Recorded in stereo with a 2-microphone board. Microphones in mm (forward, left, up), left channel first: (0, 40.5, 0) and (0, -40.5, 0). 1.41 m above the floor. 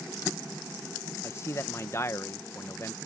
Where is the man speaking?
35° left (ahead or behind).